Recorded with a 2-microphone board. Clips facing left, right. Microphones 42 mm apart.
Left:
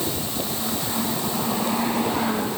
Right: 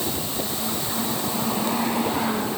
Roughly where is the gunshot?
No gunshot in this recording.